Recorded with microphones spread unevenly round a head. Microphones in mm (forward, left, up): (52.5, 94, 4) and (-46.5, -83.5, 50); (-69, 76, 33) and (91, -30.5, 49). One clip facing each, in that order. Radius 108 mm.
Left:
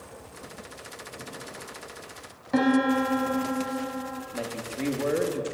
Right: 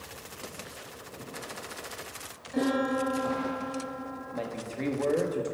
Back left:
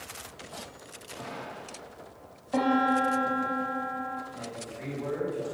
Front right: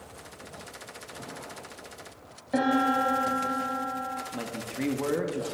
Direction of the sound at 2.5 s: 40° left.